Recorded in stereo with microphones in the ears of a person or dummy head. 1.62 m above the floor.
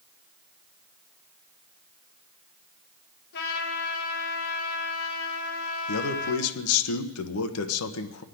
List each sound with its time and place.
3.3 s a trumpet: 65° left (ahead or behind), 3 m
5.9 s a man speaking: 85° left, 1.2 m